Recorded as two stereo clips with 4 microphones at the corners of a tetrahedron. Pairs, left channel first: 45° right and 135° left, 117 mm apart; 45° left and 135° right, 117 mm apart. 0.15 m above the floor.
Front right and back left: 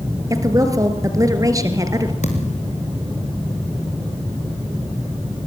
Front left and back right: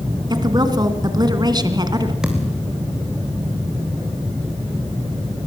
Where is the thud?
50° right, 4 m.